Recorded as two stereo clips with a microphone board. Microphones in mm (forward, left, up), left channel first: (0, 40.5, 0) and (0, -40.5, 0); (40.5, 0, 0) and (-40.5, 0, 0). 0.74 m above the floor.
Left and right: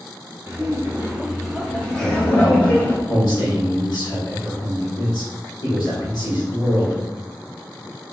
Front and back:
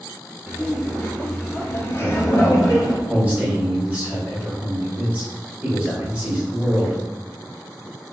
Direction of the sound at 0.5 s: 100° right.